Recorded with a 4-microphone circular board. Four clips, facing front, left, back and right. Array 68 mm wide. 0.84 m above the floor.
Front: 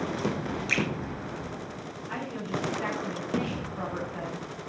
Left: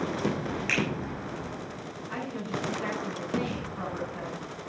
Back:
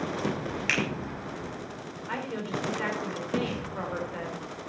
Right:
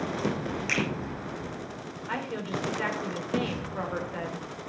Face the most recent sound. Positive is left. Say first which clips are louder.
# right 2 dB, back 1 dB
turn(degrees=-130)